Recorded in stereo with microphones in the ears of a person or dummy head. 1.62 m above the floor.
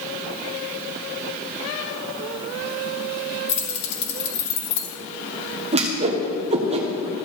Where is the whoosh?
30° right (ahead or behind), 1.1 m.